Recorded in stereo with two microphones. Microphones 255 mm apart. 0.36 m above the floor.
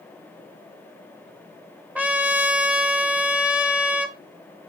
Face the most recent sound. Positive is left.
turn(degrees=-5)  # may be behind; listen again after turning